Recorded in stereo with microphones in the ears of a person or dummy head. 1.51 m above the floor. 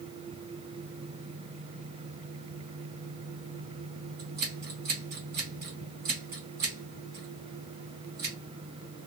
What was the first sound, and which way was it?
Scissors, 35° right (ahead or behind).